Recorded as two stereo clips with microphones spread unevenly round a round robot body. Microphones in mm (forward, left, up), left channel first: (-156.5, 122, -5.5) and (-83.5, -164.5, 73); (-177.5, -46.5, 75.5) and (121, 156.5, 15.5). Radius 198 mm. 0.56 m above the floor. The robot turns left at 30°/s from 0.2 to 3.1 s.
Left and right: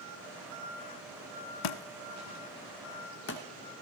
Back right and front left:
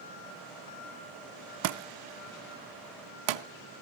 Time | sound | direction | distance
1.6 | a thud | 80° left | 0.8 m